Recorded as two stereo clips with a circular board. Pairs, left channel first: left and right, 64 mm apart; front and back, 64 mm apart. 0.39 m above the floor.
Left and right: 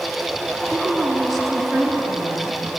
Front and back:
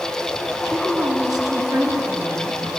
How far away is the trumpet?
I don't hear a trumpet.